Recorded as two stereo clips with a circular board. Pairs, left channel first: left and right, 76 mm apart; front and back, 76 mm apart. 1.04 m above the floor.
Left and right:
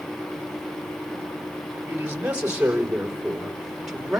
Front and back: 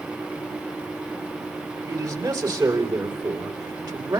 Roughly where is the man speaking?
Behind right.